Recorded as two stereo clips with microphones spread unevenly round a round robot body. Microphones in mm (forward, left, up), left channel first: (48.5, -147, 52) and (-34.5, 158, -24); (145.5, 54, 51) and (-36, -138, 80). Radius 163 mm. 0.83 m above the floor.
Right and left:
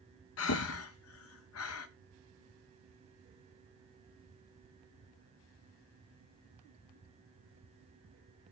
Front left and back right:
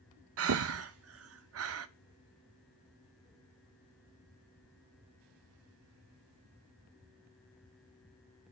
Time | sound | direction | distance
0.4 | breathing | 120° right | 0.6 m